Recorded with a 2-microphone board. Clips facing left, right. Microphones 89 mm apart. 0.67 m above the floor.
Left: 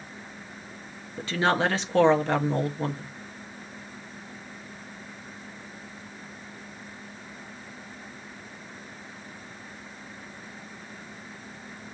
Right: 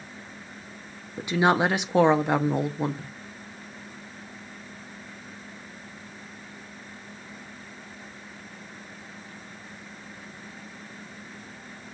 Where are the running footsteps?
I don't hear running footsteps.